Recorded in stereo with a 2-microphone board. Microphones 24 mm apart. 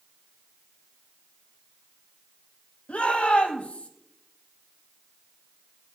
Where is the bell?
I don't hear a bell.